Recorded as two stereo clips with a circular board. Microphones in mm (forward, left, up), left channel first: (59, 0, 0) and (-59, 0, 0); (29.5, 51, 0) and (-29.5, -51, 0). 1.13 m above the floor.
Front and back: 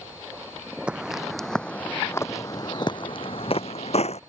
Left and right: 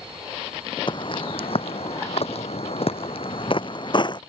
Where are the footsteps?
100° left; by 4.2 s 15° left.